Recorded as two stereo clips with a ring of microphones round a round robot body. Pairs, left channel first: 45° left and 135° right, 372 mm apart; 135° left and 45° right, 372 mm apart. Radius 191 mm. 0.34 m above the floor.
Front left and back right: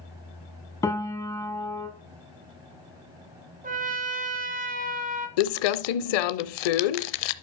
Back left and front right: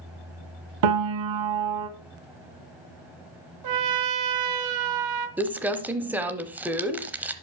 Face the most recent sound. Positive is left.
turn(degrees=40)